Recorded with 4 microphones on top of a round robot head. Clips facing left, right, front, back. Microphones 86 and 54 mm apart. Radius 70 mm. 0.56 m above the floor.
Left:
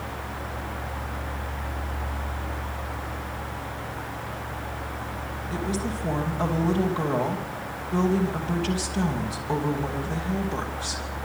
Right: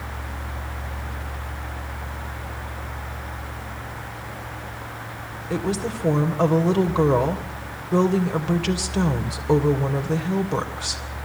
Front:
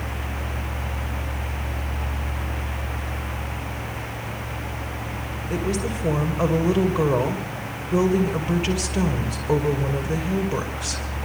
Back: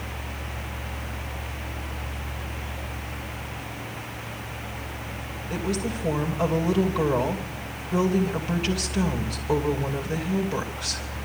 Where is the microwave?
No microwave in this recording.